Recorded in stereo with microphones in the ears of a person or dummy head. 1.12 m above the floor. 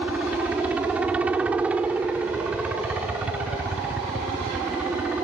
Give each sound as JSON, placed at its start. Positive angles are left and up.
{"t": 0.0, "sound": "a helicopter", "side_deg": -5}